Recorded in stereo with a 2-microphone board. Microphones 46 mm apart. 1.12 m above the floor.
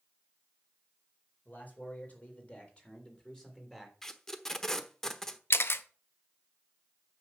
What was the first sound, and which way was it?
A man speaking, 40° left (ahead or behind).